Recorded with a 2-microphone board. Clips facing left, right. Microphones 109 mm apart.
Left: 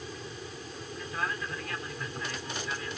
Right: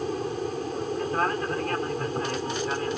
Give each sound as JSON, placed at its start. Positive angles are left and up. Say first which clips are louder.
{"t": 0.0, "sound": "an aircraft", "louder": "right 13 dB", "side_deg": -50}